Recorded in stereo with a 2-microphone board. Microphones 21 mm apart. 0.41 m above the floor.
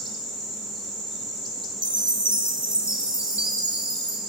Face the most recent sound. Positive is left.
turn(degrees=-80)